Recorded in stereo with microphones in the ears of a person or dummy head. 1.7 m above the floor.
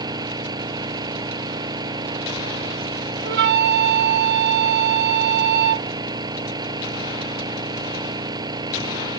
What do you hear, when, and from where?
0.0 s an engine running: 20° right (ahead or behind)
3.2 s a flute: 60° right (ahead or behind)